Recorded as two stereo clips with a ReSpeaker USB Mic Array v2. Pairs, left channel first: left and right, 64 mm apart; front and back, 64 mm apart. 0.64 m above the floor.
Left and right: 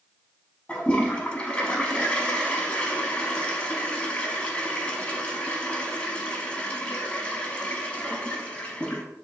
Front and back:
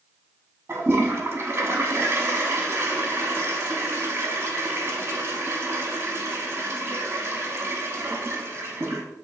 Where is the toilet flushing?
155° left, 0.7 m.